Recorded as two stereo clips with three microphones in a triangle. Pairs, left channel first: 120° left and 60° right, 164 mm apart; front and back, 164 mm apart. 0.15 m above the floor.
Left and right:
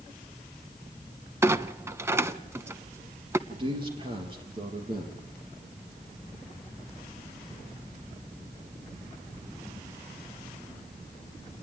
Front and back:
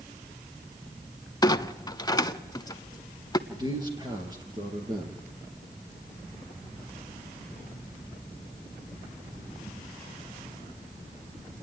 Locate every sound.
1.4 s a clunk: 10° right, 0.5 m
3.5 s a man speaking: 115° right, 3 m